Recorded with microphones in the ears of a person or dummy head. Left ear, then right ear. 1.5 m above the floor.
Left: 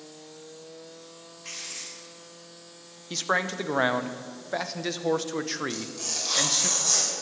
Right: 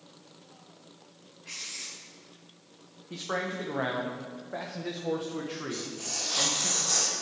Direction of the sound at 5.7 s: 80° left.